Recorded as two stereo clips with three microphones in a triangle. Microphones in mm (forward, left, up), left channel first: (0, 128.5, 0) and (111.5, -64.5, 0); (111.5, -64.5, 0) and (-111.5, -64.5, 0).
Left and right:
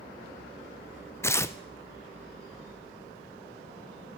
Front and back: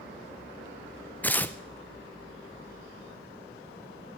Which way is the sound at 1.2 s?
65° left.